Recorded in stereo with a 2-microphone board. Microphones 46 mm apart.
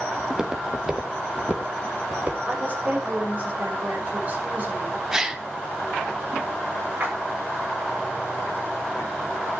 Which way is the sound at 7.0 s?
45° right (ahead or behind).